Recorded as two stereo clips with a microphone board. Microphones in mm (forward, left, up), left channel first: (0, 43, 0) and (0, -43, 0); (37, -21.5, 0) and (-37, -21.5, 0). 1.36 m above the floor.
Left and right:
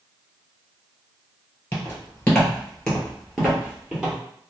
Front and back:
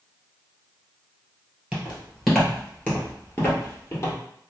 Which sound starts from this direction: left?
Footsteps, at 1.7 s.